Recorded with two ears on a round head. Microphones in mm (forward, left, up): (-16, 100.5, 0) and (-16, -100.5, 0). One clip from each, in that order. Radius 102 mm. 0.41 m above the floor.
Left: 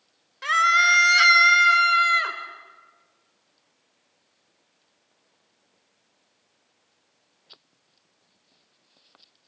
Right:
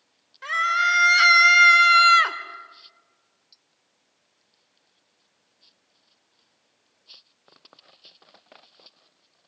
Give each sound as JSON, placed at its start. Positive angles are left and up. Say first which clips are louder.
{"t": 0.4, "sound": "a scream", "louder": "left 3 dB", "side_deg": 35, "distance_m": 1.4}